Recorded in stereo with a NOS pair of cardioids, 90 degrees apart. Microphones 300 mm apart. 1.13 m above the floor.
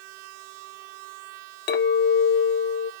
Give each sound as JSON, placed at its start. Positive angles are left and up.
{"t": 1.7, "sound": "a clink", "azimuth_deg": 40, "distance_m": 0.5}